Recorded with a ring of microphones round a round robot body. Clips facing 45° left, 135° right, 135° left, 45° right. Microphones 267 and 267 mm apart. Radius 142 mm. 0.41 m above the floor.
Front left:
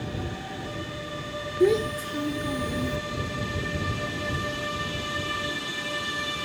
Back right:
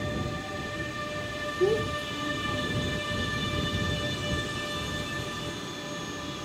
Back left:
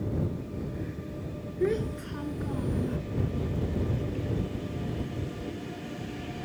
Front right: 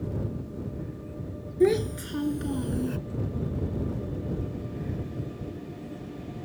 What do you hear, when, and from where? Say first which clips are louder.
1.6 s a child speaking: front left 4 dB, front right 6 dB; 15° right; by 3.0 s 5° left